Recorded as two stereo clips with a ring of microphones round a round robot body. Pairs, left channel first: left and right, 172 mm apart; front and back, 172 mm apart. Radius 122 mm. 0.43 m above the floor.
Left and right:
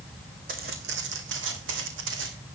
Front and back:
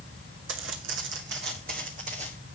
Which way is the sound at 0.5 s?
150° right.